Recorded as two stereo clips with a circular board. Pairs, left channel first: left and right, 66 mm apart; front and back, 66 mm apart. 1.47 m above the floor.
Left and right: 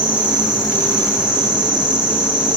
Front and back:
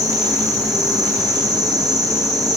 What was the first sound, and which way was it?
An insect, 165° right.